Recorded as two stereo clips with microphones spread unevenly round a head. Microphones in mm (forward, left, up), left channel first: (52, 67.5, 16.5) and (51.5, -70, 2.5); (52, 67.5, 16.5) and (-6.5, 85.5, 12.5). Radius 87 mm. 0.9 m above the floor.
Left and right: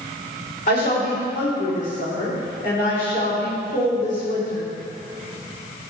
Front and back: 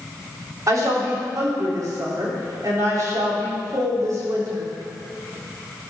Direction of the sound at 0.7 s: 135° left.